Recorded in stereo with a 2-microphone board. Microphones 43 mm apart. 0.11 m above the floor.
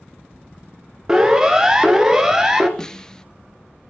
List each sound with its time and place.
1.1 s a siren: 15° right (ahead or behind), 2 m; by 2.7 s 10° right (ahead or behind), 2.5 m
2.8 s a snare drum: 15° left (ahead or behind), 0.7 m